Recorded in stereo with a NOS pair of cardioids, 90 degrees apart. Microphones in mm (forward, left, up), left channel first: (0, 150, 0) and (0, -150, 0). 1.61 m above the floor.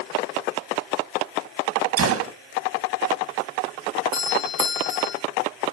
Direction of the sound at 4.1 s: 65° left.